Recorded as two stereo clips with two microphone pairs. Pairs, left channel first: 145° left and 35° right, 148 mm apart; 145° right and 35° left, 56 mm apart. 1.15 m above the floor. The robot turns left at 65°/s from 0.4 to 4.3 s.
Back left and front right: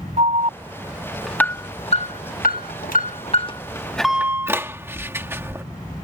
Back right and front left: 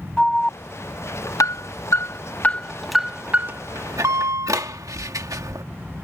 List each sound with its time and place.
0.2 s an alarm: 70° right; by 5.6 s 35° left